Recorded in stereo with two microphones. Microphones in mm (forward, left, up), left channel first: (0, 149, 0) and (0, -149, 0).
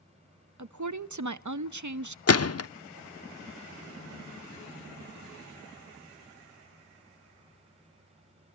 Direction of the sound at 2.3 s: 55° left (ahead or behind).